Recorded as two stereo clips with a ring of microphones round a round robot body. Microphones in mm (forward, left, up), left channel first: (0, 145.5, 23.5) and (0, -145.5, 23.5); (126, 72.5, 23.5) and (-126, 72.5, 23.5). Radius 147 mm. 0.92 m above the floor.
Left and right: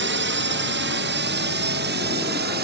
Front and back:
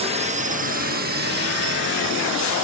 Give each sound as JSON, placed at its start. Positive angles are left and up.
{"t": 0.0, "sound": "a drone", "azimuth_deg": -120}